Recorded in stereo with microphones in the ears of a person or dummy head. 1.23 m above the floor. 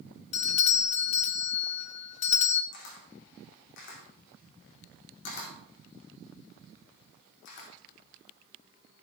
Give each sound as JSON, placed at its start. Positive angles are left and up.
{"t": 0.3, "sound": "a doorbell", "side_deg": 35, "distance_m": 0.7}
{"t": 2.7, "sound": "a camera shutter", "side_deg": 65, "distance_m": 2.0}